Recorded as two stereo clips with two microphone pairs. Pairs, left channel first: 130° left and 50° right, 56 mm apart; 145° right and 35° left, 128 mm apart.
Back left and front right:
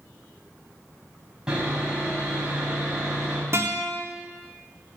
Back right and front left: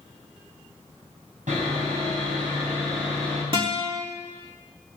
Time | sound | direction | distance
1.5 | sawing | 25° left | 4.5 m
3.5 | a guitar | 10° right | 3 m